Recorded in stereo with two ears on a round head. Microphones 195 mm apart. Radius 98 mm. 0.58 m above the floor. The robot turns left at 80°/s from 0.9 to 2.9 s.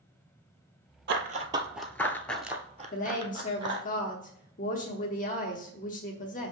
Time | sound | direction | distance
1.1 | running footsteps | 55° right (ahead or behind) | 0.9 m
2.9 | a woman speaking | 40° left (ahead or behind) | 1.0 m